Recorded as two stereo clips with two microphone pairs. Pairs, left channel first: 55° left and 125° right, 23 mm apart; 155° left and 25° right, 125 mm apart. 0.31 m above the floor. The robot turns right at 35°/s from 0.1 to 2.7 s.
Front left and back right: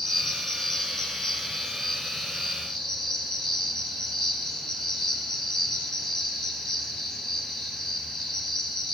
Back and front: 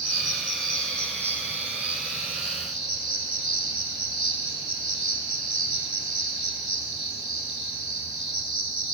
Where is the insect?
25° right, 1.4 m; by 9.0 s 65° left, 1.4 m.